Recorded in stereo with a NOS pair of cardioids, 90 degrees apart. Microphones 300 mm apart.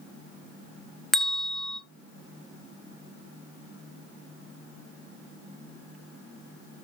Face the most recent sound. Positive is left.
turn(degrees=0)